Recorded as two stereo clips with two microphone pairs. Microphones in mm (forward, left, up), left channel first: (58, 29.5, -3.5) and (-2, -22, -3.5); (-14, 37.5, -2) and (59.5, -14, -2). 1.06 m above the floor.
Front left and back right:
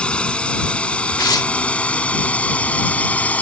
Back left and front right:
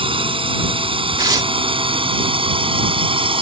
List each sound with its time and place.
0.0 s a drone: 35° right; by 3.4 s 30° right
1.2 s tearing paper: 5° left